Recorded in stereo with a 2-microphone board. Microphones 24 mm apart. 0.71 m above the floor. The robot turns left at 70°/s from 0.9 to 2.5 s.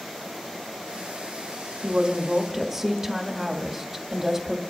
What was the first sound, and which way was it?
A woman speaking, 115° right.